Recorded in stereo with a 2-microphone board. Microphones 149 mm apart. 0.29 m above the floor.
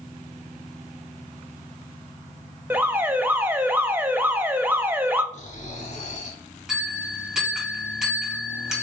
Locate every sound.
2.7 s an alarm: 15° right (ahead or behind), 0.6 m
5.3 s snoring: 55° left (ahead or behind), 0.9 m
6.7 s a bell: 5° right (ahead or behind), 2 m